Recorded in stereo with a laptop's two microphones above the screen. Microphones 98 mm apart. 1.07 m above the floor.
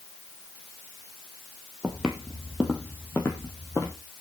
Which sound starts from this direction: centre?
Footsteps, at 1.8 s.